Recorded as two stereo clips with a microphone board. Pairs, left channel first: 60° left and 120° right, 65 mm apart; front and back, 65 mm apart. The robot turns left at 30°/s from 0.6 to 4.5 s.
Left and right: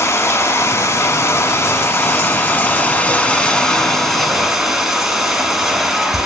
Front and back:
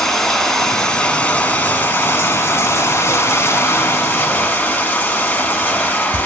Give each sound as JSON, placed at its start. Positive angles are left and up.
{"t": 0.0, "sound": "running water", "azimuth_deg": 80, "distance_m": 0.7}